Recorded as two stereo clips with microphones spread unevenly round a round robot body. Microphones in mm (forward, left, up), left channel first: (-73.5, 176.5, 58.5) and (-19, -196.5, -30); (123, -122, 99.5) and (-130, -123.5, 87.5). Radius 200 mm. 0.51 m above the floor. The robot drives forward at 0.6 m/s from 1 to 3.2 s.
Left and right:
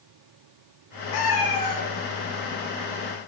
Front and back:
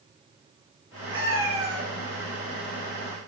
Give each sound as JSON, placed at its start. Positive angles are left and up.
{"t": 1.1, "sound": "a cat meowing", "azimuth_deg": 130, "distance_m": 0.9}